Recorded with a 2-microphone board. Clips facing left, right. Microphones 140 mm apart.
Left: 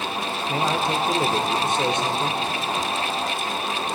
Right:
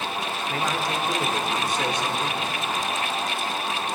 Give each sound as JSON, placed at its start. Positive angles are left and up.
{"t": 0.5, "sound": "a man speaking", "side_deg": 25, "distance_m": 0.9}